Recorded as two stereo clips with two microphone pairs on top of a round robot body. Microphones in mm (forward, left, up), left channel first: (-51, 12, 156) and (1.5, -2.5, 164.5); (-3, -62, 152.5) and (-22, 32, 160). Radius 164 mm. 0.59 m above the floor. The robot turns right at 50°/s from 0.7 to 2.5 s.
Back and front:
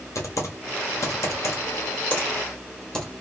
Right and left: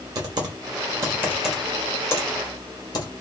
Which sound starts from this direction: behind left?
Typing on a keyboard, at 0.1 s.